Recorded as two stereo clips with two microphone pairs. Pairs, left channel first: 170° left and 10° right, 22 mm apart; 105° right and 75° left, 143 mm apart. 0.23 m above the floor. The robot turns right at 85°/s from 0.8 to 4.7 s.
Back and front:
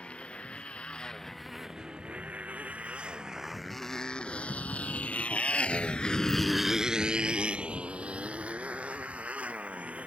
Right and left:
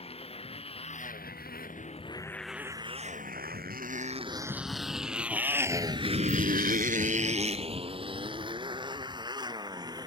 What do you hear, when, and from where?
0.0 s a motorcycle: 155° right; by 10.1 s 10° left